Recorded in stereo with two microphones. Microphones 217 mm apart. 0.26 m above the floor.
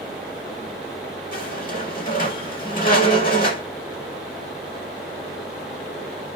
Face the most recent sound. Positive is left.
turn(degrees=40)  # may be behind; listen again after turning